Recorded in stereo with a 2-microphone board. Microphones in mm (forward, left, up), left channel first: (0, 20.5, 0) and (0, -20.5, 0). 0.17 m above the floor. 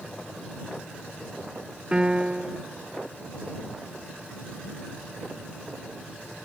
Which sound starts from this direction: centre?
A piano, at 1.9 s.